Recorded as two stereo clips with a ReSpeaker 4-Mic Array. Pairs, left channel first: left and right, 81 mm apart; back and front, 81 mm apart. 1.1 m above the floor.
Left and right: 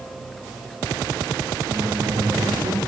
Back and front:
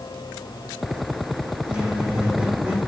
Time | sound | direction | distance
1.7 | a squeak | 75° right | 9.5 m